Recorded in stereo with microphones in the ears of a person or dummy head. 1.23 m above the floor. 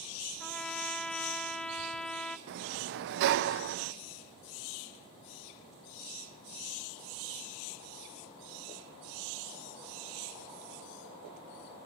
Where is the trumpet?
5° left (ahead or behind), 0.6 m.